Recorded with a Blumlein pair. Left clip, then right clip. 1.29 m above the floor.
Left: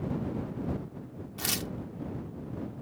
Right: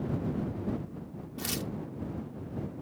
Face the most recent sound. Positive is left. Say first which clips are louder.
# left 3 dB
turn(degrees=15)